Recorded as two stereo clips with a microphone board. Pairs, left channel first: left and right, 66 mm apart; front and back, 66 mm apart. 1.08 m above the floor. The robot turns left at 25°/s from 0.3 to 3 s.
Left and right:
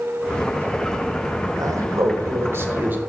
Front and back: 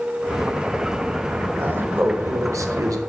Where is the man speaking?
115° right, 1.1 m; by 3.0 s 150° right, 1.1 m.